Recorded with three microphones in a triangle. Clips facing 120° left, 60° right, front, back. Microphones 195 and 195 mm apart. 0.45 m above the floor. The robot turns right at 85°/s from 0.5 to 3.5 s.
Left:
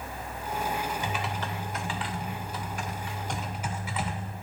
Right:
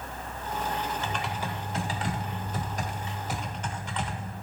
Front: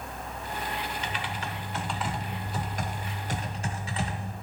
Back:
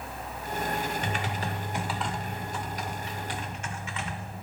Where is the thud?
No thud in this recording.